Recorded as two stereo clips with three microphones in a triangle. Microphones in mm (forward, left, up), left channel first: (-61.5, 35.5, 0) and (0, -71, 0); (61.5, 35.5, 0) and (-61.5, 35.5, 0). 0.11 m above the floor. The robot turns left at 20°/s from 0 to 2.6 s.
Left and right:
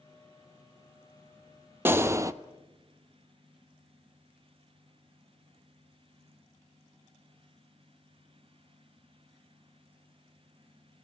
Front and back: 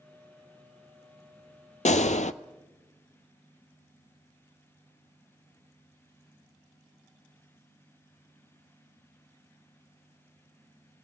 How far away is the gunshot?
About 0.5 m.